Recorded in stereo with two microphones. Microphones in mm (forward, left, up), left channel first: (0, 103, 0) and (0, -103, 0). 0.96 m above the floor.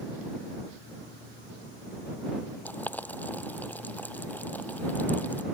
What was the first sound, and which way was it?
Boiling, 10° left (ahead or behind).